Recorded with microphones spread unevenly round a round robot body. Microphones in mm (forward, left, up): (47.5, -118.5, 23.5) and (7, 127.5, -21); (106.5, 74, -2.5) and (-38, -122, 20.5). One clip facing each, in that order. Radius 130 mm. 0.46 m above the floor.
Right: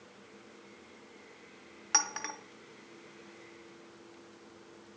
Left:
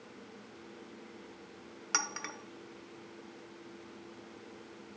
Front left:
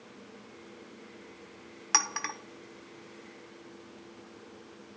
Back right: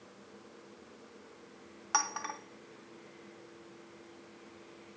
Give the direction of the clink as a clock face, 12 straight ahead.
11 o'clock.